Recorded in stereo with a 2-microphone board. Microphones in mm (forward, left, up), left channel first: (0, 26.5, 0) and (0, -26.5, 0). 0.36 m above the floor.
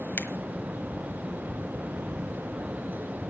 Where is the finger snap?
45° left (ahead or behind), 1.3 m.